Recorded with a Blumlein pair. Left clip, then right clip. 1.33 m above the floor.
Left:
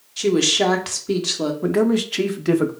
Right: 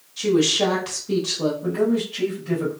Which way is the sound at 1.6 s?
40° left.